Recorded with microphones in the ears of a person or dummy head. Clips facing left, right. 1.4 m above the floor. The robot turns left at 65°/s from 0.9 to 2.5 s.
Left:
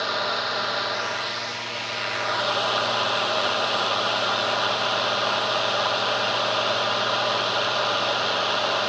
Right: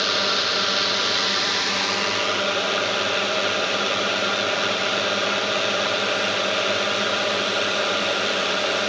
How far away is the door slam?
No door slam in this recording.